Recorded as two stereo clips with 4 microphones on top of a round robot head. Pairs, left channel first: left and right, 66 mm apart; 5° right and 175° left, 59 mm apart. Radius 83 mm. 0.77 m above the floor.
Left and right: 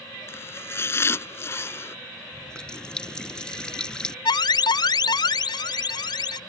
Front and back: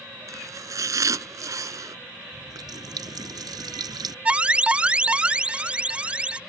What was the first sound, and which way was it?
Chopping, 145° left.